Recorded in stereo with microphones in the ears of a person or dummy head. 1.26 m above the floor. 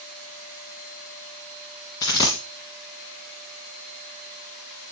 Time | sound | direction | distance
2.0 | a dropped coin | 20° left (ahead or behind) | 1.3 m